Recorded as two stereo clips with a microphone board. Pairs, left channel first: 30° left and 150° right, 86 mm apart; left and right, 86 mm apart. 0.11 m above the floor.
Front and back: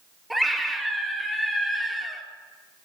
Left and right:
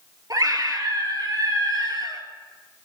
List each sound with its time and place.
0.3 s a scream: 60° right, 2.5 m